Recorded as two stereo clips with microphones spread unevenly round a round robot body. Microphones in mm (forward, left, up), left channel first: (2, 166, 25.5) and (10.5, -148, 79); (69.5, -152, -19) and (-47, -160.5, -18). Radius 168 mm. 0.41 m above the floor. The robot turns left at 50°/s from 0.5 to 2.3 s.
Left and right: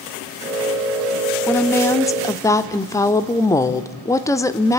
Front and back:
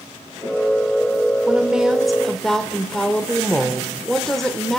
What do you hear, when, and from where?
1.5 s a woman speaking: 125° left, 0.8 m; by 4.8 s 85° left, 0.8 m